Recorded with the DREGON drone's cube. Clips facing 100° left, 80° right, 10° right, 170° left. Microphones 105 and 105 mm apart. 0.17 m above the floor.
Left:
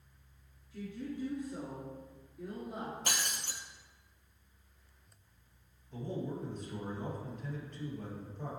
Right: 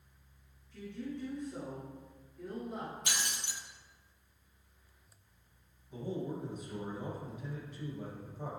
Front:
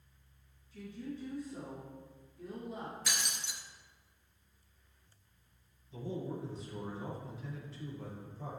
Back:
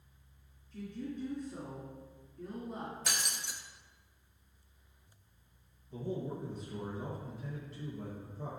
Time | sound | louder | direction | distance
0.7 | a woman speaking | left 1 dB, back 2 dB | straight behind | 2.5 m
3.1 | breaking glass | left 1 dB, back 1 dB | 135° left | 0.7 m
5.9 | a man speaking | right 1 dB, back 1 dB | 160° right | 3.5 m